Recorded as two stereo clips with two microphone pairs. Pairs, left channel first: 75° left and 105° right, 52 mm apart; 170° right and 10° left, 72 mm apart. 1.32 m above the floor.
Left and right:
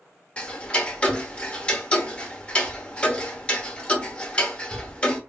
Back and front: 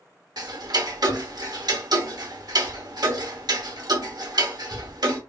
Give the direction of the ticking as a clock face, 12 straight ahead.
12 o'clock.